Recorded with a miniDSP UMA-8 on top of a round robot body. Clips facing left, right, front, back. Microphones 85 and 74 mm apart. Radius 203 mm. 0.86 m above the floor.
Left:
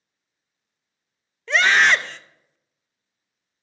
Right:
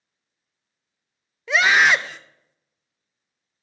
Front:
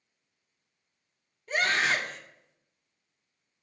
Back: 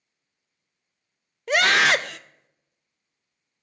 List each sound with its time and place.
1.5 s a scream: 175° right, 0.7 m